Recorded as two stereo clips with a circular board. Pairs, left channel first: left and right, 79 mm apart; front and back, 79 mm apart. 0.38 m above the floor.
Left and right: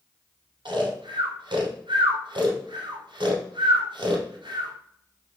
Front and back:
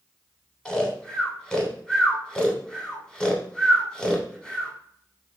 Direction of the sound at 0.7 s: 80° right.